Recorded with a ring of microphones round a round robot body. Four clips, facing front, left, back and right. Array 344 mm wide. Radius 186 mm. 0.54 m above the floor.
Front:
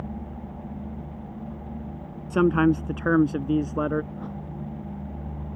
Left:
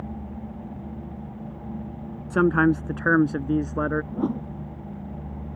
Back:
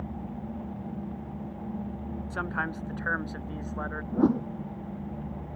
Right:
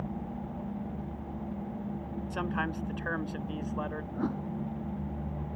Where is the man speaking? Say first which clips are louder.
Left 15 dB, front 14 dB; 45° left.